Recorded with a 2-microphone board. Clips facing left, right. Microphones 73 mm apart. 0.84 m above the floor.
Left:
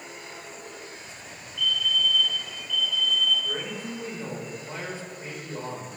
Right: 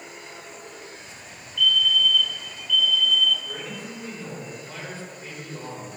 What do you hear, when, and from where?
1.6 s a fire alarm: 25° left (ahead or behind), 2 m
3.5 s a man speaking: 25° left (ahead or behind), 4 m